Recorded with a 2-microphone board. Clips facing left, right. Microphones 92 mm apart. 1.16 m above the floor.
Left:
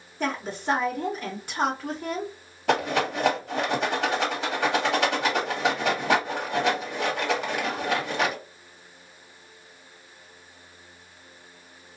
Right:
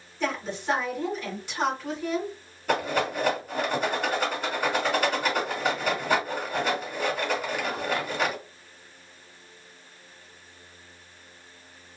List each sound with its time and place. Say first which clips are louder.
0.2 s a woman speaking: left 1 dB; 50° left (ahead or behind), 1.0 m
2.7 s a rattle: left 2 dB; 80° left, 1.4 m